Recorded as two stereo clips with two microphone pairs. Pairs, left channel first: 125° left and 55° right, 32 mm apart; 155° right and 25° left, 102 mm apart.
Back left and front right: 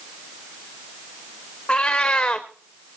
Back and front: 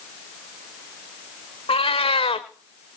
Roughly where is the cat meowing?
Behind.